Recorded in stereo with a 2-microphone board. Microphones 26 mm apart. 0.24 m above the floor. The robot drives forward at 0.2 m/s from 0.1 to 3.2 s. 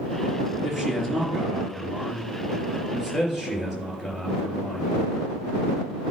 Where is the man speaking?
10° right (ahead or behind), 3.5 m.